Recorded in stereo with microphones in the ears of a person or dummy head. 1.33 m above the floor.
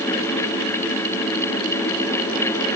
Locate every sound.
Only background noise.